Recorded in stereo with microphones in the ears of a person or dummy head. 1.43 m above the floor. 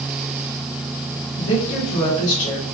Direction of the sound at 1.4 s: 85° left.